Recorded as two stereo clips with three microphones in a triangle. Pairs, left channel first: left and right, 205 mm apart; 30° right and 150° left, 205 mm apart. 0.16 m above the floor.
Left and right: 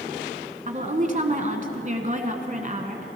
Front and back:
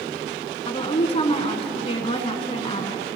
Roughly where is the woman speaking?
Right.